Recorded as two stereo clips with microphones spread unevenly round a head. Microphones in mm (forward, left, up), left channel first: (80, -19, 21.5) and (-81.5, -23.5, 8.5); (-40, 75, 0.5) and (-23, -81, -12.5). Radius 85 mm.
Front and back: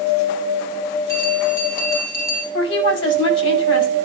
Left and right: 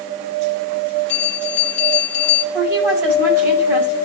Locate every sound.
1.1 s a bell: 75° left, 2 m
2.5 s a woman speaking: 5° right, 6.5 m